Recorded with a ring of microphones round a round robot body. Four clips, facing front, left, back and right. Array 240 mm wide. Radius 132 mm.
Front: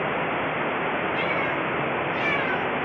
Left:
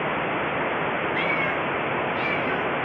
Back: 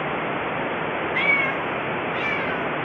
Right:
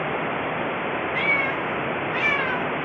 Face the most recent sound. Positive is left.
turn(degrees=-45)